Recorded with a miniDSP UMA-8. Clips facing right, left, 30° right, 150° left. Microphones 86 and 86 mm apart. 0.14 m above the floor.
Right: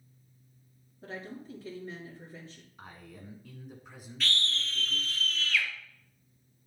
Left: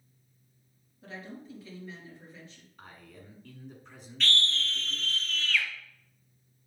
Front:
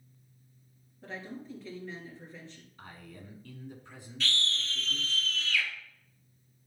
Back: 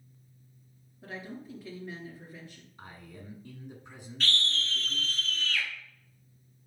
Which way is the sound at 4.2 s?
175° right.